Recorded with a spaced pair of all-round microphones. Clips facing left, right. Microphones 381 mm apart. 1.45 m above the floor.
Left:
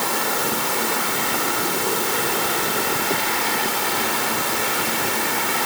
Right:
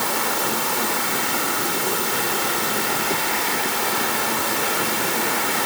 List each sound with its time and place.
Only background noise.